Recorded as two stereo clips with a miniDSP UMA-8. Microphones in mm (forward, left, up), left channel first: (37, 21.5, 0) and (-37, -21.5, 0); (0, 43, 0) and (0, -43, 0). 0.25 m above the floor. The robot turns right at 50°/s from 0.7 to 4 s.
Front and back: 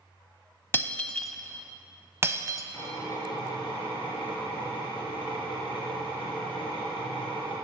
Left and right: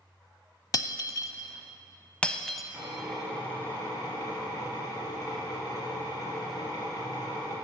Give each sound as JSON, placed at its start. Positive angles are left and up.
{"t": 0.7, "sound": "breaking glass", "azimuth_deg": 85, "distance_m": 0.5}
{"t": 2.7, "sound": "a drill", "azimuth_deg": -20, "distance_m": 3.0}